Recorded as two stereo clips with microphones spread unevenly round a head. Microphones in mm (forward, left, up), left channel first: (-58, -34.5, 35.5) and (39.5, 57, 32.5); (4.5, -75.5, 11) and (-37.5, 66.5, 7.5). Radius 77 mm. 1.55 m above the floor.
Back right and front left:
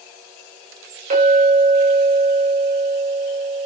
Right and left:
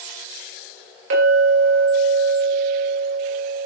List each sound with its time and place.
1.1 s a clink: 85° left, 4.5 m